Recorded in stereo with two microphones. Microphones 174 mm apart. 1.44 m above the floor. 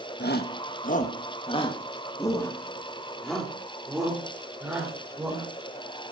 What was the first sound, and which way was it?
A shout, 75° left (ahead or behind).